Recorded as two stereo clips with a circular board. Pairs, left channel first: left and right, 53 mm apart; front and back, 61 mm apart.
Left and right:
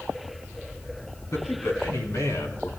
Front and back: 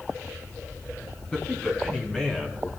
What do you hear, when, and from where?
1.3 s a man speaking: 75° left, 4 m